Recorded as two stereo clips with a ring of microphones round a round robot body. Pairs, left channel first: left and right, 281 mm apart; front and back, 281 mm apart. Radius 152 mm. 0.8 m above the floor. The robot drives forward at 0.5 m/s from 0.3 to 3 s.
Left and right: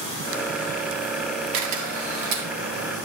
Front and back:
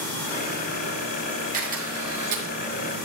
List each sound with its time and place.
1.5 s a camera shutter: 115° right, 1.7 m; by 2.5 s 130° right, 1.9 m